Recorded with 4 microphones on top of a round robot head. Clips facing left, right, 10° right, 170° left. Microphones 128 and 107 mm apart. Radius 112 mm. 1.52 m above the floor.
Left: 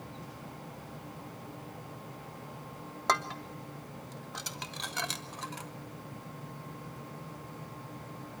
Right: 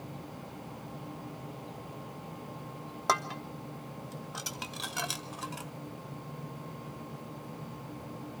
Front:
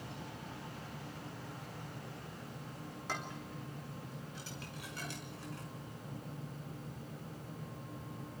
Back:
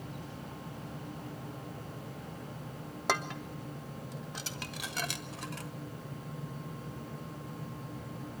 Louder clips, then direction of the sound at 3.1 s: Even, back 10 dB; 170° right.